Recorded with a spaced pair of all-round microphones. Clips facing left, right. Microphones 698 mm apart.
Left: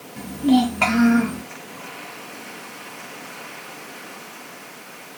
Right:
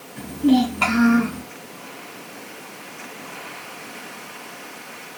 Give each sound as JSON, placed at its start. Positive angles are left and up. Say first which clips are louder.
{"t": 0.2, "sound": "a child speaking", "louder": "even", "side_deg": 20, "distance_m": 0.6}